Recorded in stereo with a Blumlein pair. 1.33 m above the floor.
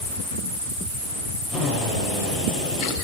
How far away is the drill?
About 8 m.